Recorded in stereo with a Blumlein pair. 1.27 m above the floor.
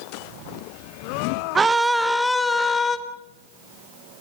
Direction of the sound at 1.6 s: 15° right.